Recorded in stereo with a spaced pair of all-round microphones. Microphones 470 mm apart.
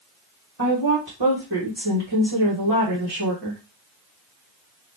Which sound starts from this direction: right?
A woman speaking, at 0.6 s.